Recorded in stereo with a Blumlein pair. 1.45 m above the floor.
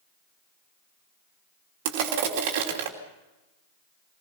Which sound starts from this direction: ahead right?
Crushing, at 1.9 s.